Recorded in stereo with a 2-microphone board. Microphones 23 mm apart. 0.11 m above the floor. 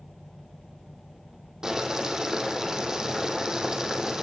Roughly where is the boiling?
Right.